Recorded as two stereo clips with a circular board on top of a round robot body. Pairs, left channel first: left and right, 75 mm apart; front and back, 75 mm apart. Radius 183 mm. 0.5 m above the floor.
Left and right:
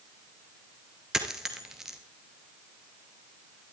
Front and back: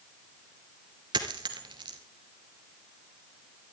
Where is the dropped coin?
170° right, 1.4 m.